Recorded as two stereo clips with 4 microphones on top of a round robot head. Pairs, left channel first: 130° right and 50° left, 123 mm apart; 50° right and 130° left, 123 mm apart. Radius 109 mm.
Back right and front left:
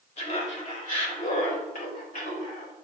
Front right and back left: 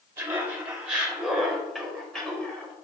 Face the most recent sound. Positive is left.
turn(degrees=-130)